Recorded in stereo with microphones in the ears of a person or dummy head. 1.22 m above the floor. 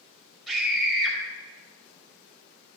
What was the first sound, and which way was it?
A scream, centre (ahead or behind).